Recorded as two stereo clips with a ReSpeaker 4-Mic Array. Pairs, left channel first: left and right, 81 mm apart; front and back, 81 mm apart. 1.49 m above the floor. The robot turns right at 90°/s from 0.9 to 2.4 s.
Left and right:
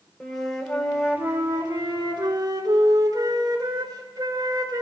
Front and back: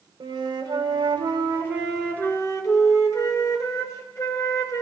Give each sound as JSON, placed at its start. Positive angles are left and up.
{"t": 0.2, "sound": "a flute", "azimuth_deg": 175, "distance_m": 3.5}